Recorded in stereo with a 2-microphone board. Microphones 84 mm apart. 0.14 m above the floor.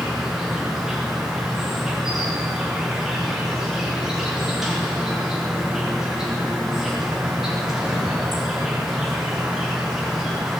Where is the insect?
5° right (ahead or behind), 6 m.